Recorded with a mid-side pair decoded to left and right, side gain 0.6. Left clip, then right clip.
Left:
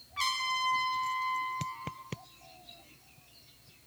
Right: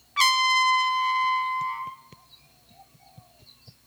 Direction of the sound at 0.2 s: 55° right.